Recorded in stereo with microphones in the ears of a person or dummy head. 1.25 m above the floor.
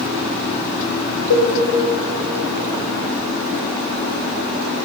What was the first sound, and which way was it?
A cowbell, 85° left.